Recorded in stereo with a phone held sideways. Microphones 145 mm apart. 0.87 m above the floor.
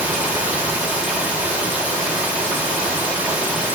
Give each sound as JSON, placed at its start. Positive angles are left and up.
{"t": 0.0, "sound": "running water", "side_deg": -10, "distance_m": 3.0}